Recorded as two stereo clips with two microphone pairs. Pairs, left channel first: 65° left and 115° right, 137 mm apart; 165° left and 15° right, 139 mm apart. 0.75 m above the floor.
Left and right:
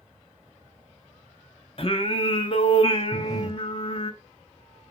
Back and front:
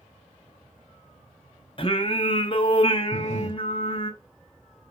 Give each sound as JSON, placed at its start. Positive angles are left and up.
{"t": 1.8, "sound": "singing", "azimuth_deg": 115, "distance_m": 0.5}
{"t": 3.1, "sound": "breathing", "azimuth_deg": 130, "distance_m": 1.1}